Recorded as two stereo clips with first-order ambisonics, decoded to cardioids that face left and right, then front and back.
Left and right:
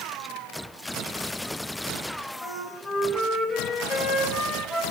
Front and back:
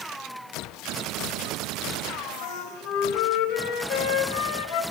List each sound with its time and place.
2.4 s a flute: 10° right, 4 m